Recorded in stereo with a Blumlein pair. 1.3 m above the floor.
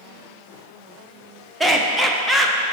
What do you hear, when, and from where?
1.6 s laughter: 5° right, 0.9 m